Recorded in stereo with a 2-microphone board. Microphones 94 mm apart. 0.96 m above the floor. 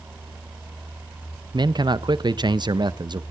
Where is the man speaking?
50° right (ahead or behind), 0.5 m.